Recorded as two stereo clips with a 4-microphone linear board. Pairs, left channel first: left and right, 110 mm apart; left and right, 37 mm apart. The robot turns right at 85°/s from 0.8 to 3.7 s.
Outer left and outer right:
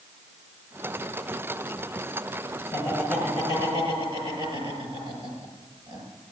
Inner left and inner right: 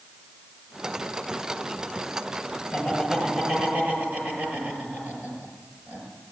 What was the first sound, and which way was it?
Laughter, 25° left (ahead or behind).